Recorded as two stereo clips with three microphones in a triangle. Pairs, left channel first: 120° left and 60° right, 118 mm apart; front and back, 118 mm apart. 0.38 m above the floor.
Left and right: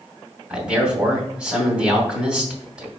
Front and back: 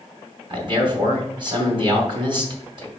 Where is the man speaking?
140° right, 2.5 m.